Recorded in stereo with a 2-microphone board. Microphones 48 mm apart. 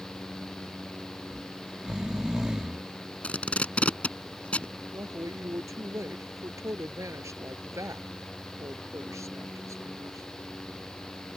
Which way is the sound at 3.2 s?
25° left (ahead or behind).